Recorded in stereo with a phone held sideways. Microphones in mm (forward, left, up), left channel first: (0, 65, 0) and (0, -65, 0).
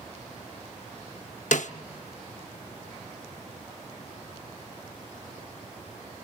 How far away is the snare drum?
About 0.8 m.